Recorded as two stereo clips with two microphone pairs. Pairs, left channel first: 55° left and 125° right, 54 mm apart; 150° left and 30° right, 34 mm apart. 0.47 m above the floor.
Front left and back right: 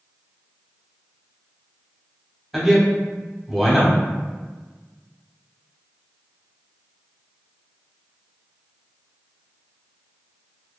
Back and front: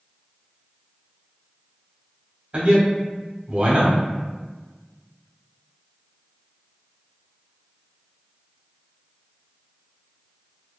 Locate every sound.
2.5 s a man speaking: 40° right, 0.9 m